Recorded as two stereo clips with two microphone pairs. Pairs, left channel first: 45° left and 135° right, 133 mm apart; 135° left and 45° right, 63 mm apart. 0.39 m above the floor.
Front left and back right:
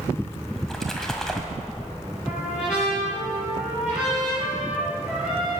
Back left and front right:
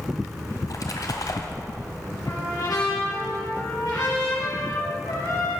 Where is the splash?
130° left, 1.6 m.